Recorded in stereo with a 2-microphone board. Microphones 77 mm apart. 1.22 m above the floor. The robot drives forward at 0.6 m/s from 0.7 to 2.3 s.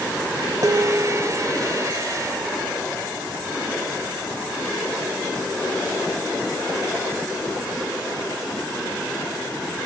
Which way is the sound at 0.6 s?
45° right (ahead or behind).